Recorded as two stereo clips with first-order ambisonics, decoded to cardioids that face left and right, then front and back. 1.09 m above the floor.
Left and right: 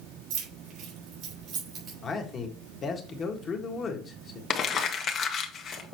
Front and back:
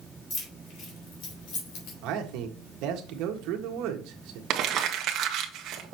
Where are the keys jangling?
55° right, 3.5 m; by 1.9 s 25° right, 4 m.